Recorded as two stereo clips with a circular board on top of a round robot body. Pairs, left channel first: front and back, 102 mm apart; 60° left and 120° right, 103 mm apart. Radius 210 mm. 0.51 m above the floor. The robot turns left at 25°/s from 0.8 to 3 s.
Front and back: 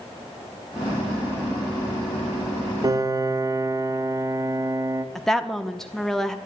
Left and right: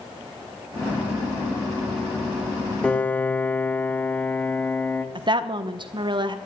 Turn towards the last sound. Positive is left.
turn(degrees=-85)